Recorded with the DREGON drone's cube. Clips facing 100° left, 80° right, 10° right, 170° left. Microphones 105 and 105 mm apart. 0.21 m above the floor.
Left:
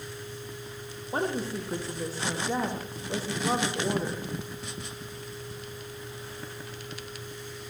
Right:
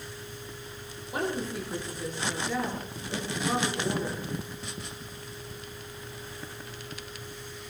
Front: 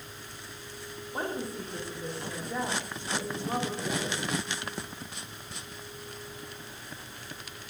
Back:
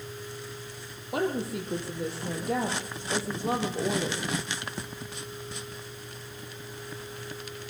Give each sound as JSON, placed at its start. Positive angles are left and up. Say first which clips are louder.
{"t": 1.1, "sound": "a woman speaking", "louder": "left 1 dB, back 5 dB", "azimuth_deg": 155, "distance_m": 8.5}